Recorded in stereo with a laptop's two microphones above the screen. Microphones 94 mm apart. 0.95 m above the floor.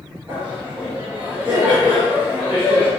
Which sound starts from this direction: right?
Laughter, at 0.3 s.